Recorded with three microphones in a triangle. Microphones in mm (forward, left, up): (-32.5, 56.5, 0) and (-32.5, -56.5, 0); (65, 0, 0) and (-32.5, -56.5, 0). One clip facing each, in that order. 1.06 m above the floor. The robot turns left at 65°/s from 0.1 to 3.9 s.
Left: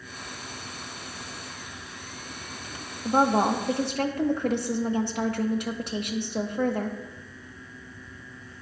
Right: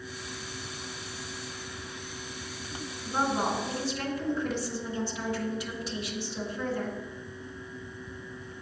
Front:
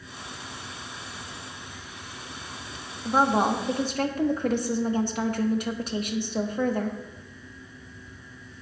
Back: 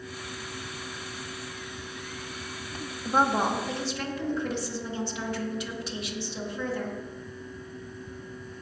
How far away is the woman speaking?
About 1.4 m.